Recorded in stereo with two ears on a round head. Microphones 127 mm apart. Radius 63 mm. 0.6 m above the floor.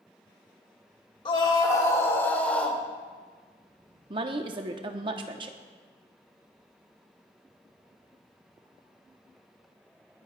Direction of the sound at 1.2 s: 35° left (ahead or behind).